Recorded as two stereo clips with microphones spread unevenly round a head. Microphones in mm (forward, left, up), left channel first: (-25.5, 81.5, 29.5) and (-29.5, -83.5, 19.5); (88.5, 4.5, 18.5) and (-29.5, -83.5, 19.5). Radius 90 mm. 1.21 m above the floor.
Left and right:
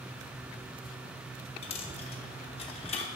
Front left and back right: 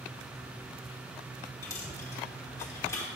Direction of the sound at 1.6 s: 100° left.